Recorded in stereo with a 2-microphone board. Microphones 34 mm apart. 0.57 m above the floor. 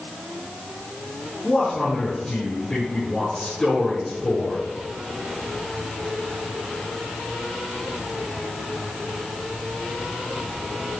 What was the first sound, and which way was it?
A man speaking, 25° left (ahead or behind).